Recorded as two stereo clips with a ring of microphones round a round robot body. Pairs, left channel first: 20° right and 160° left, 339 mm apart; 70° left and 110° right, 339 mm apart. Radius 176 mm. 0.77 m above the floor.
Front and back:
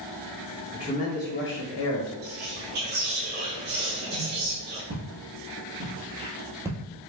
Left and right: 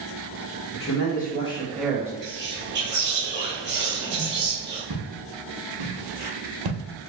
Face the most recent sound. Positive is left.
turn(degrees=-120)